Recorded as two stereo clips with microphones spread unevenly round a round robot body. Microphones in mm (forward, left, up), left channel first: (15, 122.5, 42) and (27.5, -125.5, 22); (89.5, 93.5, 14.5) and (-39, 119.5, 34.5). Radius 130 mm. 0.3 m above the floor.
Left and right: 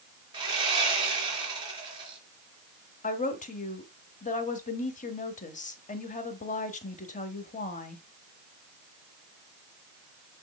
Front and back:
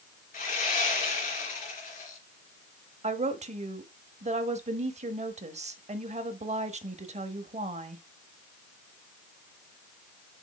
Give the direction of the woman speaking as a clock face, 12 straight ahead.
7 o'clock.